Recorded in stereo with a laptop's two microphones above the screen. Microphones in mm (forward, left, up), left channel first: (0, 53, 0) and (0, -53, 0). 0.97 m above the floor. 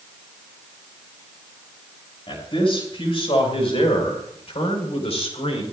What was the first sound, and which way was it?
A man speaking, 55° left (ahead or behind).